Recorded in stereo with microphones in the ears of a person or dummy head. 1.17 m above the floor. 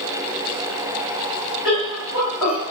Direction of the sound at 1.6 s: 15° right (ahead or behind).